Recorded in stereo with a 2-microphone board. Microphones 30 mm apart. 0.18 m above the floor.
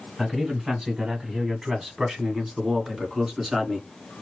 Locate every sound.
0.2 s a man speaking: 10° right (ahead or behind), 1.2 m; by 3.9 s 5° right (ahead or behind), 1.7 m